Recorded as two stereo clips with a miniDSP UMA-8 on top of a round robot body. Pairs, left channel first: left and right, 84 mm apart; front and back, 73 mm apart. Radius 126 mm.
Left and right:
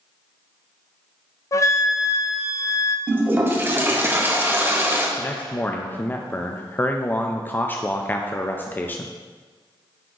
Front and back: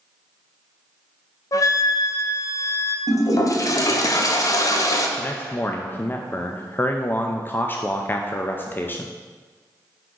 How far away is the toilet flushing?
About 1.0 m.